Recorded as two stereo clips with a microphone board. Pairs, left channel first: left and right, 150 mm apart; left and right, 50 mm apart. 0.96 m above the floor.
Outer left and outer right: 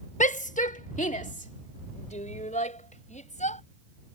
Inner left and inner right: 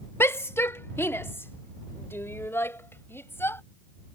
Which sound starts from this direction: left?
A shout, at 0.2 s.